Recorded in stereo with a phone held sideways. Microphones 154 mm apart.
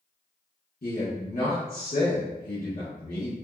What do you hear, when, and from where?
0.8 s a man speaking: 65° left (ahead or behind), 1.2 m